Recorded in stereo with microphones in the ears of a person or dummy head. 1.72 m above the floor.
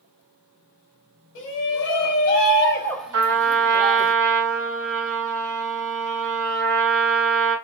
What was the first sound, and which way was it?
A shout, 65° left (ahead or behind).